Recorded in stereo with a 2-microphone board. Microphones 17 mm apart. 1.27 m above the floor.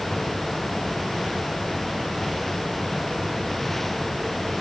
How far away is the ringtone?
No ringtone in this recording.